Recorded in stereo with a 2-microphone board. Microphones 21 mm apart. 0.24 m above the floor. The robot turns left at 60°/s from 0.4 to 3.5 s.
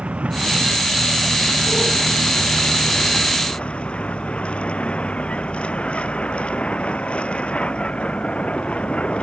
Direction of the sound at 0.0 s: 110° right.